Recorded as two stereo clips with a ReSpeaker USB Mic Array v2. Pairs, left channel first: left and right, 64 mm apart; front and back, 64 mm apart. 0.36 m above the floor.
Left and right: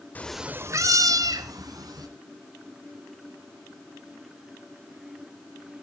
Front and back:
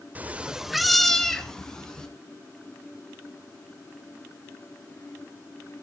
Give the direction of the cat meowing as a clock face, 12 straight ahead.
8 o'clock.